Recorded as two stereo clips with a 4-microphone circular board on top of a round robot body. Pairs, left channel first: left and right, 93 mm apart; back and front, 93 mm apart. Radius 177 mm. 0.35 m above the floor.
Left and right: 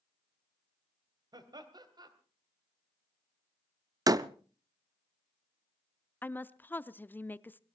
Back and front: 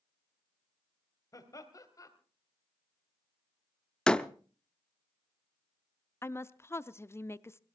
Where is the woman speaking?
145° left, 0.9 m.